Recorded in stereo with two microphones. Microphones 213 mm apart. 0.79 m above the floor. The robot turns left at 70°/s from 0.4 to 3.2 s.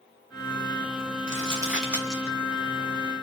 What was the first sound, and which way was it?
Crumpling, 40° right (ahead or behind).